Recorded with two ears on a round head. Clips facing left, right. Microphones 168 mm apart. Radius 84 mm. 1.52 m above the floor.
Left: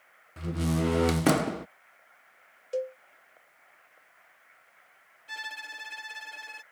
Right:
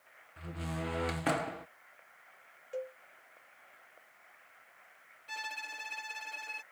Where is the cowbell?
50° left (ahead or behind).